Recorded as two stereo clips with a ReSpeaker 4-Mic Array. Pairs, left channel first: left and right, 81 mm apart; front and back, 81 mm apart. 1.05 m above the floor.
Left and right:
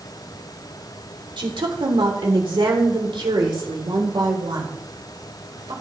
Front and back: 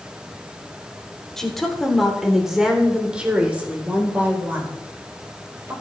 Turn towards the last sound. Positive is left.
turn(degrees=-120)